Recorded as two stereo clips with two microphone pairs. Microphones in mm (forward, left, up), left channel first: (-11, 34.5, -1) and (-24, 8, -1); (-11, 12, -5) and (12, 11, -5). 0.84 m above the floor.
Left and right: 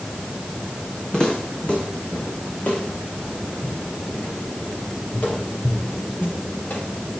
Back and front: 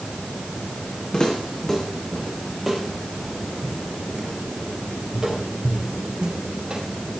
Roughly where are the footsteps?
Behind left.